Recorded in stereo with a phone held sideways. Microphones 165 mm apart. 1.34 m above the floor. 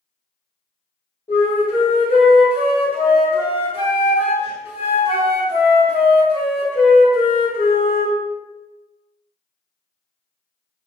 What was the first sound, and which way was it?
A flute, 30° left (ahead or behind).